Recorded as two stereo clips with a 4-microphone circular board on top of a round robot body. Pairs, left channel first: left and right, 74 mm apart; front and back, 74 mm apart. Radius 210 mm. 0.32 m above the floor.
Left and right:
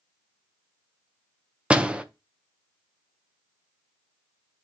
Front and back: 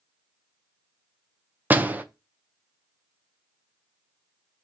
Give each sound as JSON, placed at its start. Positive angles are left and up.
{"t": 1.7, "sound": "a door slam", "azimuth_deg": -150, "distance_m": 0.8}